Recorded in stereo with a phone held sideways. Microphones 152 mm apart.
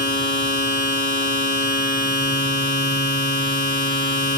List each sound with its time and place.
0.0 s a machine running: 70° right (ahead or behind), 1.5 m